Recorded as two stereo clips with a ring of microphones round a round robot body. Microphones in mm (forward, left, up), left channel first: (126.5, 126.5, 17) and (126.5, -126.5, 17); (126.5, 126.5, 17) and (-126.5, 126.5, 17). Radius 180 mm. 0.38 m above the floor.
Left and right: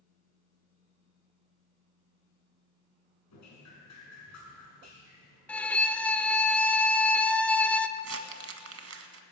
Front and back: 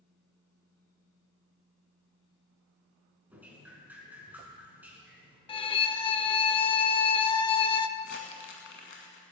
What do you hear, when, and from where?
3.3 s dripping: 95° left, 5 m
5.5 s a violin: 15° left, 0.9 m
8.0 s crumpling: 60° right, 1.5 m